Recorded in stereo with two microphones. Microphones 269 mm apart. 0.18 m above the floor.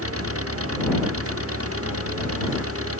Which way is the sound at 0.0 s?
60° right (ahead or behind).